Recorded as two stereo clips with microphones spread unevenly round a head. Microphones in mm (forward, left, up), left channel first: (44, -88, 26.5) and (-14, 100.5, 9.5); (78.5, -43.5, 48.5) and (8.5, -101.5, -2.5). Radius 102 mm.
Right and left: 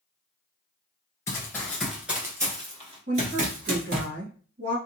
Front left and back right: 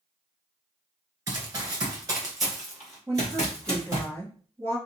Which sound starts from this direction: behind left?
A woman speaking, at 3.1 s.